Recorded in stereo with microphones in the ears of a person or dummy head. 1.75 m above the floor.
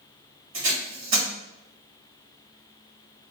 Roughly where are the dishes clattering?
No dishes clattering in this recording.